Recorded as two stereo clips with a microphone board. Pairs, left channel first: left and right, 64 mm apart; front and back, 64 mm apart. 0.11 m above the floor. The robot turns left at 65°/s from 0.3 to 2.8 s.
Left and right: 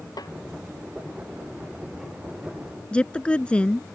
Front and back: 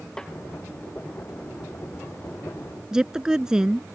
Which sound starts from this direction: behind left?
A woman speaking, at 2.9 s.